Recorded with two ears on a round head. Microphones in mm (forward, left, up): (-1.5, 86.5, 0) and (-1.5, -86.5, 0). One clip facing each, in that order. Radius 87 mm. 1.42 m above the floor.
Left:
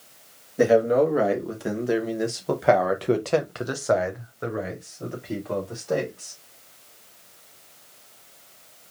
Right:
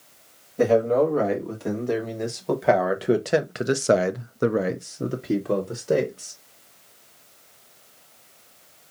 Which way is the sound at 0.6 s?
10° left (ahead or behind).